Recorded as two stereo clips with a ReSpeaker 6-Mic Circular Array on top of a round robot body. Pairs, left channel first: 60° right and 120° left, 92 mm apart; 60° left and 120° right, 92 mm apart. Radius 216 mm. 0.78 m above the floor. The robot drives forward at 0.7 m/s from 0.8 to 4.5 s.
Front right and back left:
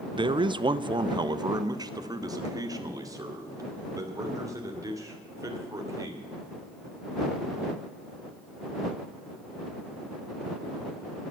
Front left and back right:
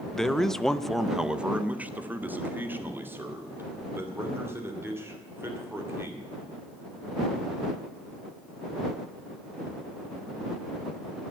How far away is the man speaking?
About 0.7 m.